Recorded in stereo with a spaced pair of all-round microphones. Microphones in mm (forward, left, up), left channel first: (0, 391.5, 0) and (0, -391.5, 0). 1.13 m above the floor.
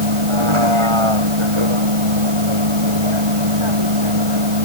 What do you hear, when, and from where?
0.0 s a vehicle: 35° right (ahead or behind)